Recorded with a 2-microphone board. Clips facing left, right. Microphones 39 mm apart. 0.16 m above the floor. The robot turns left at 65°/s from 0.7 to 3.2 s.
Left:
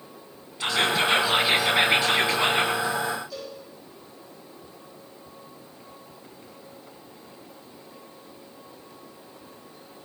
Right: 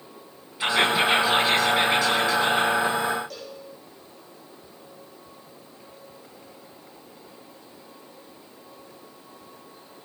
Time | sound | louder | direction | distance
0.6 | whispering | right 2 dB | 15° right (ahead or behind) | 1.7 m
3.3 | a cowbell | left 2 dB | 60° right (ahead or behind) | 6 m